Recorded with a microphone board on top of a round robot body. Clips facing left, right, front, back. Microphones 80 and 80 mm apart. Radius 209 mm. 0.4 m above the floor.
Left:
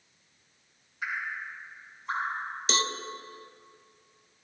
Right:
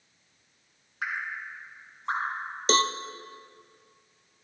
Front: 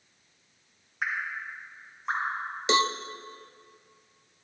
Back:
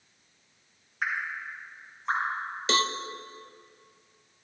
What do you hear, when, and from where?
1.0 s dripping: 85° right, 2.5 m
2.7 s a cowbell: 65° right, 0.7 m